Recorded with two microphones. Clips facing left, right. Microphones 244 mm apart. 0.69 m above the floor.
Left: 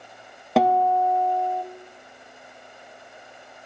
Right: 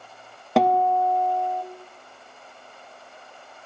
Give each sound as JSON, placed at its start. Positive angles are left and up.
{"t": 0.6, "sound": "a guitar", "side_deg": 0, "distance_m": 0.5}